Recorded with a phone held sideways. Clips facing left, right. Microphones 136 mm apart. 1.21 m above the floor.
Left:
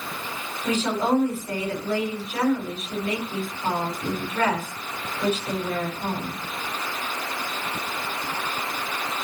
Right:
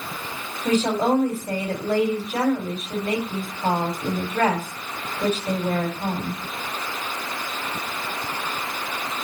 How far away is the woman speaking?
About 4 m.